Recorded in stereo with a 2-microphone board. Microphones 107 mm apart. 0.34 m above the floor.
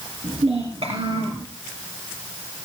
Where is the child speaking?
70° right (ahead or behind), 3.5 m.